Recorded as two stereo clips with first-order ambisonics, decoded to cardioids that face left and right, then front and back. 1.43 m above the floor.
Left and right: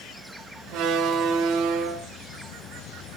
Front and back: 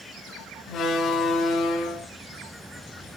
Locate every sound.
0.7 s a door slam: 55° right, 3 m